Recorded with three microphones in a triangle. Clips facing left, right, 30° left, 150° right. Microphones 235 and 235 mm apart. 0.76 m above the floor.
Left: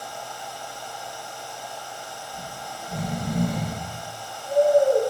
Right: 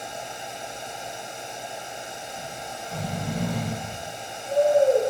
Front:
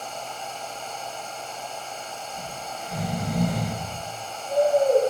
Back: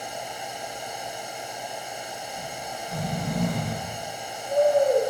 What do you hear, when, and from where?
2.3 s snoring: 100° left, 0.5 m